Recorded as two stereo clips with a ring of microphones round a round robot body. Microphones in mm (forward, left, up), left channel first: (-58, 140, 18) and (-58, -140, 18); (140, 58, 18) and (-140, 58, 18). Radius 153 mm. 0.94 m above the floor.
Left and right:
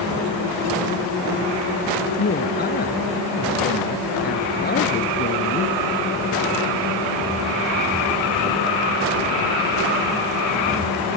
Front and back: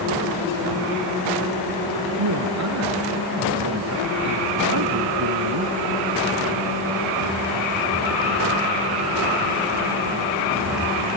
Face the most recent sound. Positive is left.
turn(degrees=145)